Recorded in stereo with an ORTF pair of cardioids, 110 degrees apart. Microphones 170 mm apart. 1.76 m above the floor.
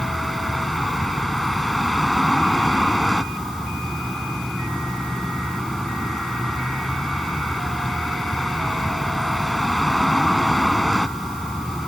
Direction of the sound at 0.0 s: Straight ahead.